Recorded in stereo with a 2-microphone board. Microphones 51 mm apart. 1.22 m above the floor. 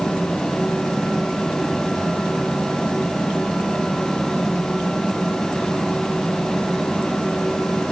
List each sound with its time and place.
Only background noise.